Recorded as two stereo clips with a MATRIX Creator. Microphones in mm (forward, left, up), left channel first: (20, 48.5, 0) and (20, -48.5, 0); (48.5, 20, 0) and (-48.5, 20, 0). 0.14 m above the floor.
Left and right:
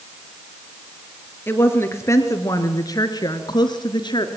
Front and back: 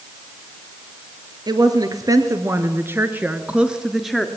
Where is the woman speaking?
150° left, 3 m; by 4.3 s 90° left, 2.5 m.